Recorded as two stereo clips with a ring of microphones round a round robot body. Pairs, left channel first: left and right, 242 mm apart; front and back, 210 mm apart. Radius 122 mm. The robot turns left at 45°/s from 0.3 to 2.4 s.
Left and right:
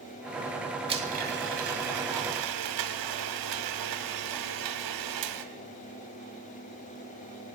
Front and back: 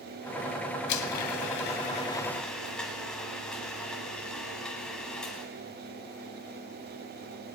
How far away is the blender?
About 0.9 m.